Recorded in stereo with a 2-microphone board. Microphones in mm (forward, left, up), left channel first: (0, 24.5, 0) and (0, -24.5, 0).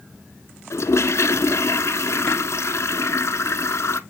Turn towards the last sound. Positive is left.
turn(degrees=70)  # may be behind; listen again after turning